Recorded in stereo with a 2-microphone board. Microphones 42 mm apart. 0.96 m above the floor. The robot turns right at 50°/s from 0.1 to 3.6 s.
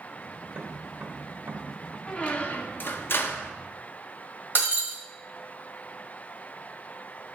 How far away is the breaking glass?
About 1.5 m.